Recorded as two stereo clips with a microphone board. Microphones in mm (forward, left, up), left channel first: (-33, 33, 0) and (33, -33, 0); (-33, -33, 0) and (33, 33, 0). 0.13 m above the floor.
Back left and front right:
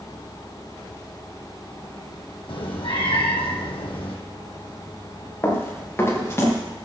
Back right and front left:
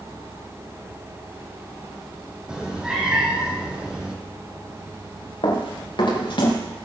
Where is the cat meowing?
125° left, 2.5 m.